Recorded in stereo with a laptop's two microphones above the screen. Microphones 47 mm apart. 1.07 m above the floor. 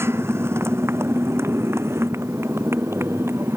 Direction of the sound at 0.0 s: 65° right (ahead or behind).